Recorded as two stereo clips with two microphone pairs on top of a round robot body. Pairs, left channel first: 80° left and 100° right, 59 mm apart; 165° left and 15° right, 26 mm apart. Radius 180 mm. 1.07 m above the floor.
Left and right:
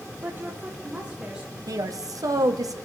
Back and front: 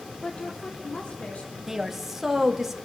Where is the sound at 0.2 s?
145° right, 1.5 m; by 1.6 s 175° right, 2.5 m.